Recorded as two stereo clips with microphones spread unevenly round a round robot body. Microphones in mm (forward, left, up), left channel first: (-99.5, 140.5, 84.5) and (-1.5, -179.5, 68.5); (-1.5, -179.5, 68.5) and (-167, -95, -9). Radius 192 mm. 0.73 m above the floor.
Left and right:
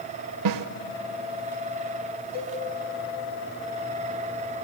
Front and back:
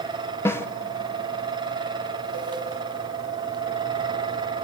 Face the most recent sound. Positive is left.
turn(degrees=40)